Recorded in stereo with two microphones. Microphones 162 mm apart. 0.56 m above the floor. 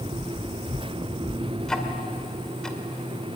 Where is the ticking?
5° left (ahead or behind), 2 m.